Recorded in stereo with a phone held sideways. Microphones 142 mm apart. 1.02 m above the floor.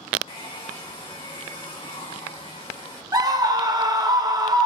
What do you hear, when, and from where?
0.3 s a hair dryer: 40° left (ahead or behind), 1.6 m
3.1 s a scream: 25° right (ahead or behind), 0.7 m